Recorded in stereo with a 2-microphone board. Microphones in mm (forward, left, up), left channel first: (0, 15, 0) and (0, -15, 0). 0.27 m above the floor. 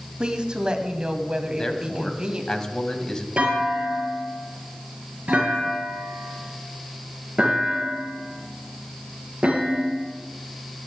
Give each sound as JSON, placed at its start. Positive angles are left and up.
{"t": 0.2, "sound": "a woman speaking", "side_deg": -30, "distance_m": 1.7}
{"t": 1.5, "sound": "a man speaking", "side_deg": 20, "distance_m": 1.8}
{"t": 3.4, "sound": "a clunk", "side_deg": -40, "distance_m": 5.5}